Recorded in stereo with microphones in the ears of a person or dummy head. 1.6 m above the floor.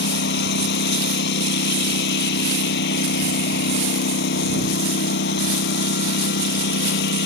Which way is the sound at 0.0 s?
65° left (ahead or behind).